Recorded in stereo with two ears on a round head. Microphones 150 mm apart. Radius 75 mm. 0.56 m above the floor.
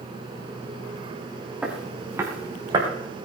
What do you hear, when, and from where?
1.6 s footsteps: 10° right (ahead or behind), 4 m; by 2.9 s 30° right (ahead or behind), 4.5 m